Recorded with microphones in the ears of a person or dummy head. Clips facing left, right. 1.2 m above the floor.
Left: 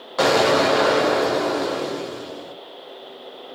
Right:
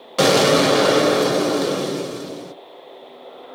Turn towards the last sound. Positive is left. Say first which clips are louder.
# right 2 dB
turn(degrees=-35)  # may be behind; listen again after turning